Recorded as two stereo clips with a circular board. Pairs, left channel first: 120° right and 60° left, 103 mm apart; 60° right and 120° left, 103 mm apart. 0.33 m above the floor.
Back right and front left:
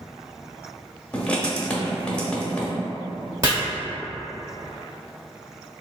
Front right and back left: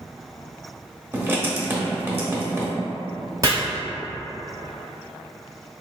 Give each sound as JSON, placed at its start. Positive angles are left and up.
{"t": 1.1, "sound": "writing", "azimuth_deg": 170, "distance_m": 0.7}
{"t": 3.4, "sound": "chopping", "azimuth_deg": 90, "distance_m": 1.3}